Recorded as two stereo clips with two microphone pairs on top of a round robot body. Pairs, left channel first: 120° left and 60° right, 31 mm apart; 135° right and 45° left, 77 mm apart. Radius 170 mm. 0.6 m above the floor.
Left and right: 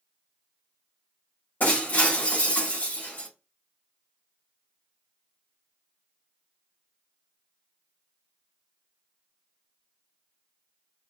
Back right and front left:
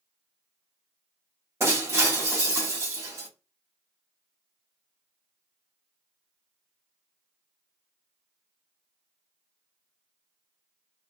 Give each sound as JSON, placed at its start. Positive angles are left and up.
{"t": 1.6, "sound": "breaking glass", "azimuth_deg": 100, "distance_m": 2.0}